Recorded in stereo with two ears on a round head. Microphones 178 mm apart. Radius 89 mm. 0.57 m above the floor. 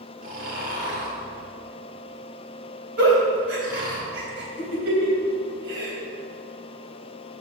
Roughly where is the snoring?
Right.